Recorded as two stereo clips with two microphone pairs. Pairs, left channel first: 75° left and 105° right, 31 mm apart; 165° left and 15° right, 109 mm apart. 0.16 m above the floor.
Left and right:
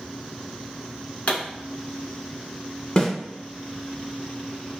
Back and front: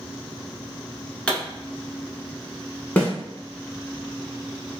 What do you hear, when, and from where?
1.3 s a pop: 85° left, 1.1 m
3.0 s a snare drum: 105° left, 1.0 m